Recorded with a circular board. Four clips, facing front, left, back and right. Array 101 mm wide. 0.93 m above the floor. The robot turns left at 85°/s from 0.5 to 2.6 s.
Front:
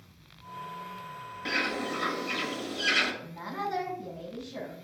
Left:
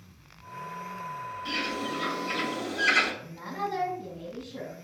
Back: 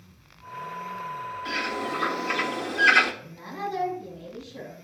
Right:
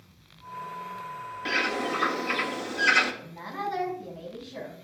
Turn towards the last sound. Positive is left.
turn(degrees=-45)